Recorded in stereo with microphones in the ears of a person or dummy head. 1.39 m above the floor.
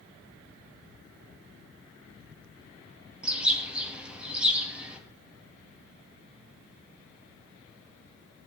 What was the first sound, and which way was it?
A bird, 10° right (ahead or behind).